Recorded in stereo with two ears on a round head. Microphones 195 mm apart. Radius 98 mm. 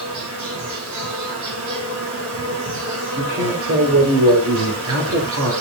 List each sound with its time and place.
0.0 s an insect: 70° right (ahead or behind), 5.5 m
3.2 s a man speaking: 75° right (ahead or behind), 3 m